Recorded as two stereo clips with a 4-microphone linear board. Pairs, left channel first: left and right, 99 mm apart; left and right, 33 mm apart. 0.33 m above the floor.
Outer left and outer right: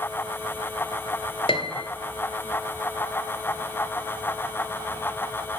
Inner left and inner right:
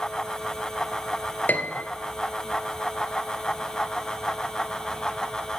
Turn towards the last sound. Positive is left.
turn(degrees=65)  # may be behind; listen again after turning